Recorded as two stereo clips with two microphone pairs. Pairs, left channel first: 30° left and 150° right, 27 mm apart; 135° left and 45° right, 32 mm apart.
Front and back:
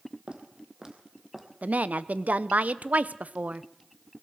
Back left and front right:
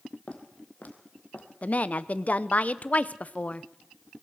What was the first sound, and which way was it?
Footsteps, 170° left.